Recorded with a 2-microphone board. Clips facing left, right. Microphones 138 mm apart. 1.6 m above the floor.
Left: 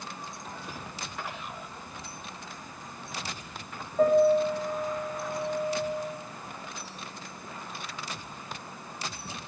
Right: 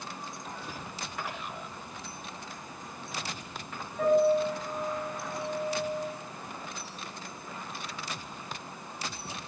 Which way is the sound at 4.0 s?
45° left (ahead or behind).